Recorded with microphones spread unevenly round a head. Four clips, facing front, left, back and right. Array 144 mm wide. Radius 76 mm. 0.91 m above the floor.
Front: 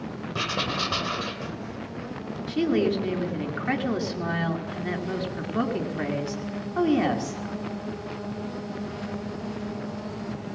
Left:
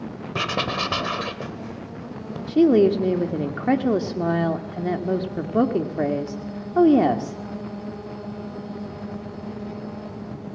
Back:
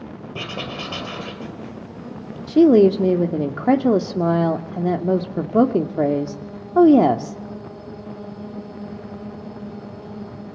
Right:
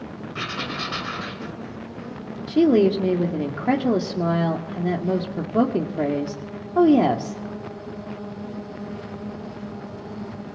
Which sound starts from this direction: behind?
A woman speaking, at 2.5 s.